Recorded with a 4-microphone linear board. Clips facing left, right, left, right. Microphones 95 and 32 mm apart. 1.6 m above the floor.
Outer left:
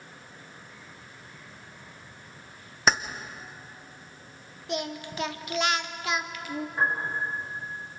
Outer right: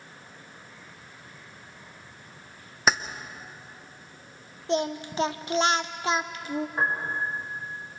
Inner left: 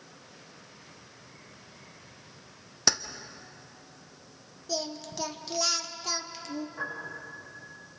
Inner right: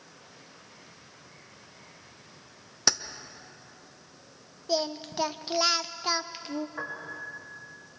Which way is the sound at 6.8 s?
30° right (ahead or behind).